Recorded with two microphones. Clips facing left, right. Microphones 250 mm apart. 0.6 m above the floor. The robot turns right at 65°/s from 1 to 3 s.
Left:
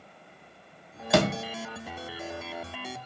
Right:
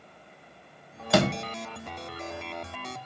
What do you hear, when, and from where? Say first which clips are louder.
1.1 s a door slam: even; centre (ahead or behind), 0.5 m; by 1.4 s 10° left (ahead or behind), 0.5 m